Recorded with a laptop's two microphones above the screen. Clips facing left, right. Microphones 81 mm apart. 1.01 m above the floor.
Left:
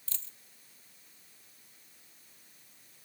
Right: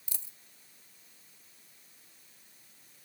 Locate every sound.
0.1 s a dropped coin: 15° right (ahead or behind)